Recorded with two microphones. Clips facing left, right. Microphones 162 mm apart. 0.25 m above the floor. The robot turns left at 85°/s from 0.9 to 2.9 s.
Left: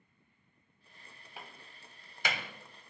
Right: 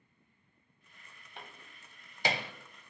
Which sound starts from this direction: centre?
A door slam, at 1.4 s.